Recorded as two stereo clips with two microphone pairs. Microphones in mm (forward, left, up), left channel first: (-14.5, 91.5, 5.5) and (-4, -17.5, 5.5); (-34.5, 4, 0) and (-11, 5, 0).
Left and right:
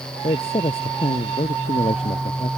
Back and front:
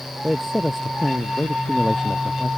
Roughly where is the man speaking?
Left.